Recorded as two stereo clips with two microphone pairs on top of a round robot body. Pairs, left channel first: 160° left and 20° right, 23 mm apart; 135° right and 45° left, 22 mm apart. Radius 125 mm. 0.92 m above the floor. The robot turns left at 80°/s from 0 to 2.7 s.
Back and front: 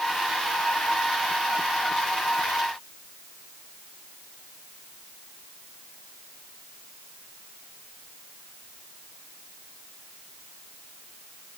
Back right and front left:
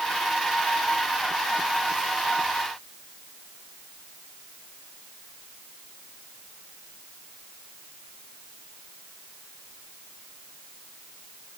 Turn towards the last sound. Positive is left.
No sound to turn to.